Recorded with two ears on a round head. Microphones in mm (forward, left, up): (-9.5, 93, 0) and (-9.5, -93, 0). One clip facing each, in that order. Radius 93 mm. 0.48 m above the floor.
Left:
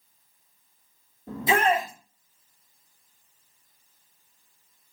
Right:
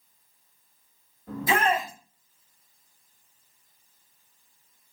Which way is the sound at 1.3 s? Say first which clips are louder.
Left 2 dB; 25° left (ahead or behind).